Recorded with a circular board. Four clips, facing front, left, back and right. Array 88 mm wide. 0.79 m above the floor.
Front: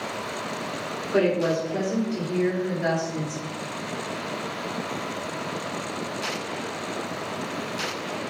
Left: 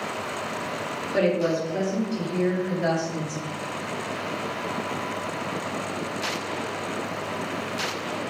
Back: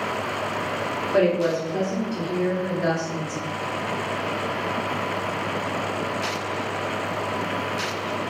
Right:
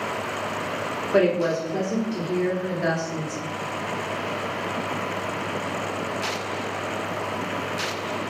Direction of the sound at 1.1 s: 95° right.